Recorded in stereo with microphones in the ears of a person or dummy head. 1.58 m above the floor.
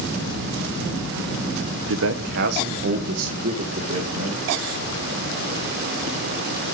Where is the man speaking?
70° right (ahead or behind), 0.7 m; by 4.5 s 35° right (ahead or behind), 2 m.